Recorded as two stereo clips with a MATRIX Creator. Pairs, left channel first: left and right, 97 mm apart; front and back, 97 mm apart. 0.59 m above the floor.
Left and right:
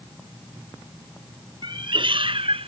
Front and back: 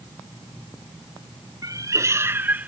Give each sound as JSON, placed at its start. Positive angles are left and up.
{"t": 1.6, "sound": "a cat meowing", "azimuth_deg": -130}